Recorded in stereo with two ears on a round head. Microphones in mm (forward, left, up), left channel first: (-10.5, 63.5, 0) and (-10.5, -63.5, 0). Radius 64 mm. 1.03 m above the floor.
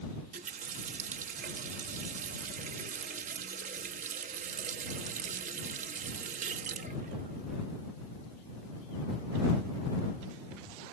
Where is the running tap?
50° right (ahead or behind).